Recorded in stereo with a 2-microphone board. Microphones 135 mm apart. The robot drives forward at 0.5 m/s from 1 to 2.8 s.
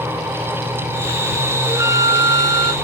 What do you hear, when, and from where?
1.7 s a flute: 20° right (ahead or behind), 0.8 m; by 2.7 s 35° right (ahead or behind), 0.5 m